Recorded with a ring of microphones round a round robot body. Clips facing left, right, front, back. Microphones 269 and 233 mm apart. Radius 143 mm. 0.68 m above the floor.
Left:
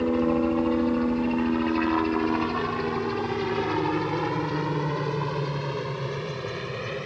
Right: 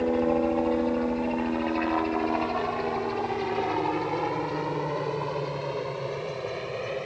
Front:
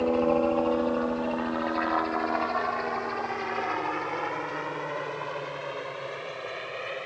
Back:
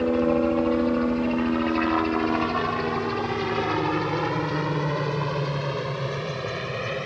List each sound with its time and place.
0.0 s a helicopter: 135° left; by 7.1 s 150° left